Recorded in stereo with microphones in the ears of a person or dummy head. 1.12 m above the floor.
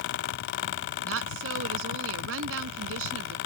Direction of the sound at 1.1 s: 75° right (ahead or behind).